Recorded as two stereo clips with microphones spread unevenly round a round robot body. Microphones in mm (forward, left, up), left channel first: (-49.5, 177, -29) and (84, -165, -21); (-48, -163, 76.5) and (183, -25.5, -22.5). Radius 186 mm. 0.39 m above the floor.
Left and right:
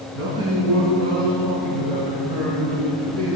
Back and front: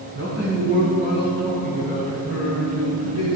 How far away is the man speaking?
About 3 m.